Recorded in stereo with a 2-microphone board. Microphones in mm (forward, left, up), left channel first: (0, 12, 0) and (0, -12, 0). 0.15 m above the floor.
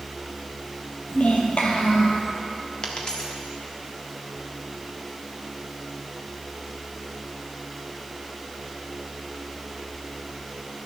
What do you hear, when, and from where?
1.1 s a child speaking: 70° left (ahead or behind), 2.5 m
2.8 s a dropped coin: 35° left (ahead or behind), 2.0 m